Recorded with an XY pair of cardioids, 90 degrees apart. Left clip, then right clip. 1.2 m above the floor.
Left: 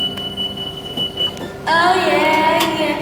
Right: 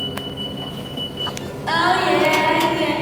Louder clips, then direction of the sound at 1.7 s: Left 4 dB; 65° left.